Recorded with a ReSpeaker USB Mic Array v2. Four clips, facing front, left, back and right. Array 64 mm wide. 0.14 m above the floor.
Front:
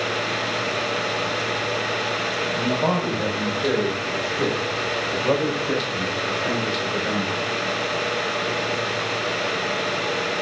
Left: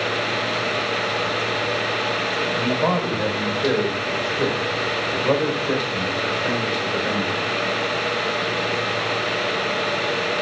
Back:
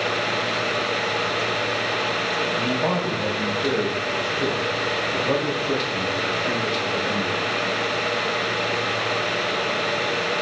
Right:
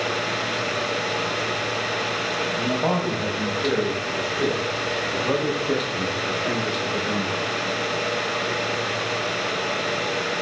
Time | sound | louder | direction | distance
2.5 | a man speaking | left 2 dB, front 3 dB | 55° left | 6.5 m